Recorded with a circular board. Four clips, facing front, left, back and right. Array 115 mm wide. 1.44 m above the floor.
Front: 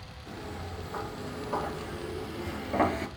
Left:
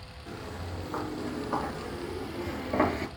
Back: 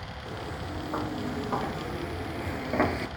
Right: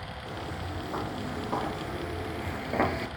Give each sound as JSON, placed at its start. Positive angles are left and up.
{"t": 0.3, "sound": "footsteps", "azimuth_deg": -150, "distance_m": 3.0}